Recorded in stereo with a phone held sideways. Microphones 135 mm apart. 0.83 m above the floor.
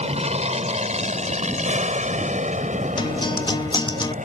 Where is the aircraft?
50° right (ahead or behind); by 4.2 s 65° right (ahead or behind).